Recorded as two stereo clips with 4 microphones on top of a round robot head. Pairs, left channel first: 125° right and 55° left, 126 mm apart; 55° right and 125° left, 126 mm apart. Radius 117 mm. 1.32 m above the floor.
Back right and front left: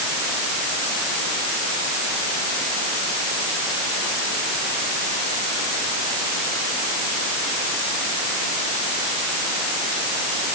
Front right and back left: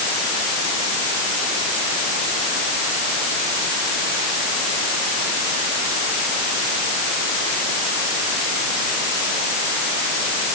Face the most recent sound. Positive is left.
No sound to turn to.